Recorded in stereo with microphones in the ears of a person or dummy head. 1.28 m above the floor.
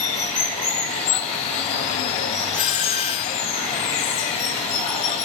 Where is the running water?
35° left (ahead or behind), 1.1 m.